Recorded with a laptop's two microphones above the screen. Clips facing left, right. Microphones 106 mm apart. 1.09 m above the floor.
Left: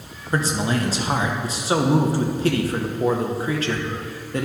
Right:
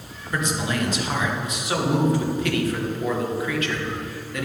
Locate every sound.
0.3 s a man speaking: 35° left (ahead or behind), 0.9 m